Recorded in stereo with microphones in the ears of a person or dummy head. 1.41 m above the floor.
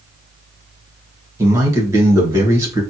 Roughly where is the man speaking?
Centre.